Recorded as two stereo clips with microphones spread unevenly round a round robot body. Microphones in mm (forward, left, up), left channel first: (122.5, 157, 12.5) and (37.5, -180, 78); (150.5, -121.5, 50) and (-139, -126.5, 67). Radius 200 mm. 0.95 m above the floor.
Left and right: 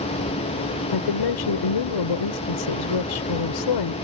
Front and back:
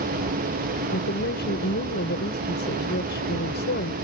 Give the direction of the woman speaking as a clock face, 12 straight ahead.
10 o'clock.